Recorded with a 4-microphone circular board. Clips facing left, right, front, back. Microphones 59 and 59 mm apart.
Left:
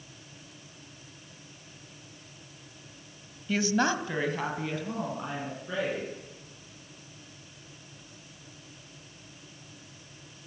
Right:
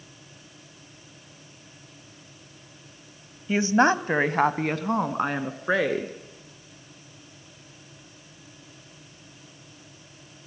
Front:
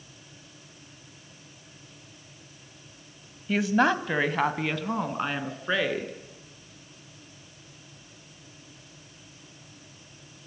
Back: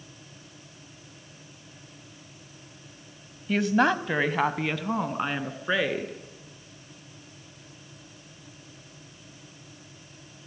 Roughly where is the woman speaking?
Right.